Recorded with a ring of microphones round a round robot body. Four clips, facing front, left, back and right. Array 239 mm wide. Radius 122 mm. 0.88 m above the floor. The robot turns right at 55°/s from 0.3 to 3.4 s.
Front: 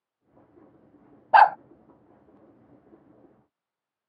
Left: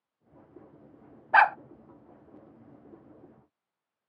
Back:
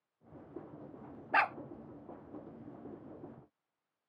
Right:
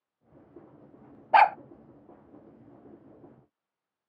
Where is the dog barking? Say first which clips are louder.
Right 2 dB, front 16 dB; 35° right; by 1.6 s 20° right.